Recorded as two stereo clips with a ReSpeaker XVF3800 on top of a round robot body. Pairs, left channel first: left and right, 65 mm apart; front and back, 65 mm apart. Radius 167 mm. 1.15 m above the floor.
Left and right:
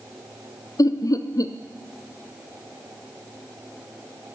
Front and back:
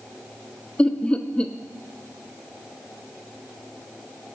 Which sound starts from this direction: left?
Laughter, at 0.8 s.